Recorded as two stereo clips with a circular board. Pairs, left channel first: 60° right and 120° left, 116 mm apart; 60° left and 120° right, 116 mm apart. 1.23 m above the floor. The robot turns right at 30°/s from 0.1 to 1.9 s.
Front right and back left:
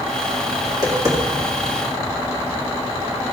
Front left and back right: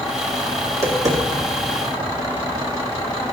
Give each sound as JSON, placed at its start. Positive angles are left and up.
{"t": 0.7, "sound": "tapping", "azimuth_deg": 170, "distance_m": 2.0}